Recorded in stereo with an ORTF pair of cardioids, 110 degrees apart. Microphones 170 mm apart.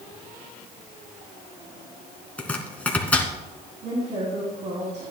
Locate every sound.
2.4 s chopping: 10° left, 2 m
3.8 s a woman speaking: 40° right, 3.5 m